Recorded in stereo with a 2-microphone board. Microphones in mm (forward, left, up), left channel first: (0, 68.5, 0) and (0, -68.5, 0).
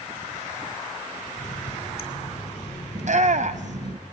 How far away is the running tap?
About 2.5 m.